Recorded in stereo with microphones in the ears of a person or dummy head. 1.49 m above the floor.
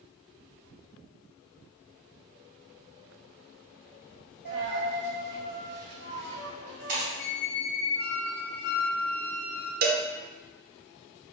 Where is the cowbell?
50° right (ahead or behind), 0.7 m.